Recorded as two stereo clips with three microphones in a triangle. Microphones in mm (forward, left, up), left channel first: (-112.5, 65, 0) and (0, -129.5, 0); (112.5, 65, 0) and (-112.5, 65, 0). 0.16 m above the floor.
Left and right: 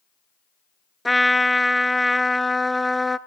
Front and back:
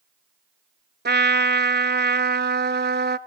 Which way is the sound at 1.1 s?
150° right.